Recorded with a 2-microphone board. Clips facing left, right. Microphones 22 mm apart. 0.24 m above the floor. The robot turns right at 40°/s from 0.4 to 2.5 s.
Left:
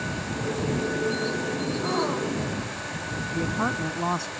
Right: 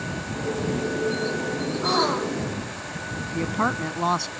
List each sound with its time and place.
1.8 s a gasp: 80° right; by 2.6 s 55° right (ahead or behind)
3.3 s a woman speaking: 50° right (ahead or behind)